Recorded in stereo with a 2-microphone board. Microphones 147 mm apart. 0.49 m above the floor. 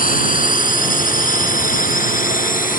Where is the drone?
70° left (ahead or behind).